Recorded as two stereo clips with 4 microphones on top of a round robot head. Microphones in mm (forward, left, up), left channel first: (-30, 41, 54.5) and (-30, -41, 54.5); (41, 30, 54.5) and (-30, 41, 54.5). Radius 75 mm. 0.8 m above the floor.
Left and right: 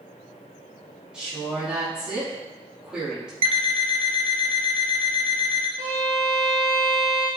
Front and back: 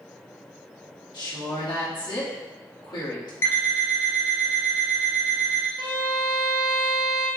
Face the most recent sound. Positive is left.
turn(degrees=15)